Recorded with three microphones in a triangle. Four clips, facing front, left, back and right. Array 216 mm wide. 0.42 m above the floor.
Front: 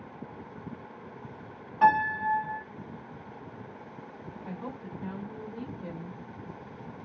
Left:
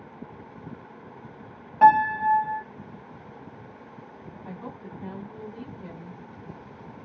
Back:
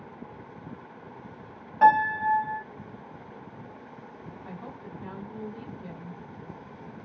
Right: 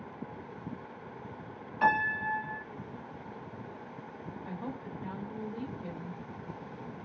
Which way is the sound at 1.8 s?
105° left.